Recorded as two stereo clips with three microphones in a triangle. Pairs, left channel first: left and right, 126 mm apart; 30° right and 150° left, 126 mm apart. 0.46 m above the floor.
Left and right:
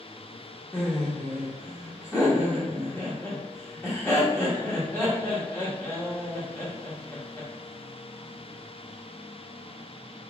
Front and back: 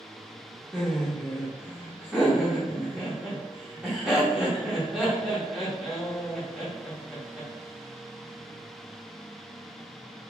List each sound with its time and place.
0.7 s laughter: 80° left, 1.0 m